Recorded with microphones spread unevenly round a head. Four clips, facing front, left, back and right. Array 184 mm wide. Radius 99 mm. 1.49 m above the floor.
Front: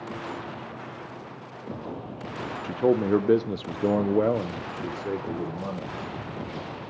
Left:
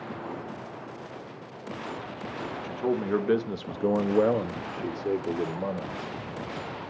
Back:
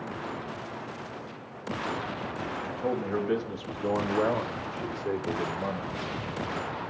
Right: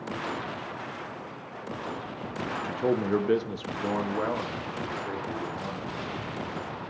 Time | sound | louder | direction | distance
2.6 | a man speaking | right 1 dB, front 10 dB | 15° right | 1.1 m